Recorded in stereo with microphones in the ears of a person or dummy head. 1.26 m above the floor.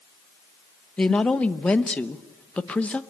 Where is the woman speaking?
10° left (ahead or behind), 0.9 m.